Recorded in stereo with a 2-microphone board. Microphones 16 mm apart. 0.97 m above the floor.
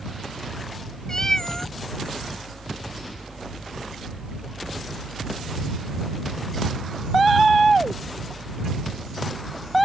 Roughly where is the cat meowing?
Left.